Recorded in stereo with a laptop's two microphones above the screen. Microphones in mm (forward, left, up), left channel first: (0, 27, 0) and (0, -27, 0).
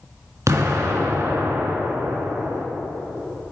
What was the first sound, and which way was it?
An explosion, 60° right (ahead or behind).